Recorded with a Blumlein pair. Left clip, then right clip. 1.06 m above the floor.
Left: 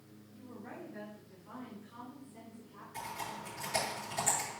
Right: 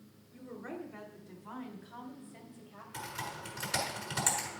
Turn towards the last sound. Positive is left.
turn(degrees=-60)